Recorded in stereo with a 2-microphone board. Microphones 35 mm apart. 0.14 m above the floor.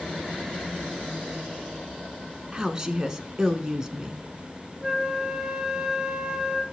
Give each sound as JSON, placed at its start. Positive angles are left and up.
{"t": 2.5, "sound": "a woman speaking", "side_deg": -20, "distance_m": 1.1}
{"t": 4.8, "sound": "a flute", "side_deg": -10, "distance_m": 1.8}